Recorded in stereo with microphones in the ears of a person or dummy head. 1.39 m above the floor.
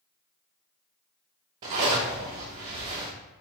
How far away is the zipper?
About 0.6 m.